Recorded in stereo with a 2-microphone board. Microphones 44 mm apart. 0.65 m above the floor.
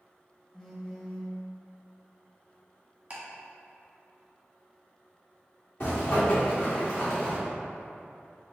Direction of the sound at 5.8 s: 55° left (ahead or behind).